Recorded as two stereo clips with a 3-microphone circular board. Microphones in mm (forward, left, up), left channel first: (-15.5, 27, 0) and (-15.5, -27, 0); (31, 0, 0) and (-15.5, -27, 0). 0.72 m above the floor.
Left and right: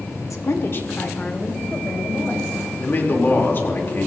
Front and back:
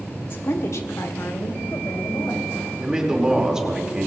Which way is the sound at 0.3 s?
75° left.